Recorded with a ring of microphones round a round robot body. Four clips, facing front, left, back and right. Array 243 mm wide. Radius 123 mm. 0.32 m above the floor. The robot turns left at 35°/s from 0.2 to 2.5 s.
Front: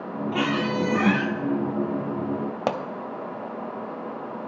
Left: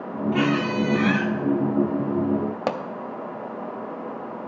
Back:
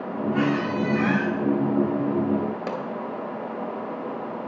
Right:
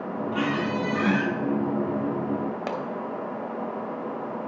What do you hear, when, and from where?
0.3 s a squeak: 40° left, 1.0 m; by 1.3 s 5° left, 1.0 m
2.7 s a pop: 35° left, 0.6 m